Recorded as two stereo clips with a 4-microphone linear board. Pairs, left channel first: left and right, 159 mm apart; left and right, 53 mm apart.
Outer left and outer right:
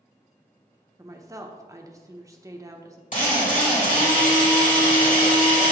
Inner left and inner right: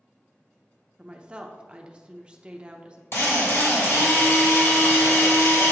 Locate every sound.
1.0 s a woman speaking: 20° right (ahead or behind), 0.7 m
3.1 s a drill: 55° left (ahead or behind), 2 m